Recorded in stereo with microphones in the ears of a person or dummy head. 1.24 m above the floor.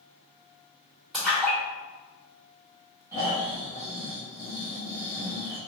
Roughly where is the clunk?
No clunk in this recording.